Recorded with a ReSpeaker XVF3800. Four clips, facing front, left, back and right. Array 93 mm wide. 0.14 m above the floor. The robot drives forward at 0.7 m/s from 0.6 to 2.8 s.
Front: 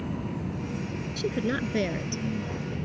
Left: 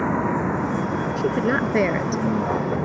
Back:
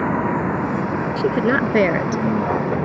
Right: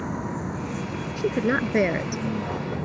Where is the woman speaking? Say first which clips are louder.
Even, back 10 dB; 175° left; by 2.2 s straight behind.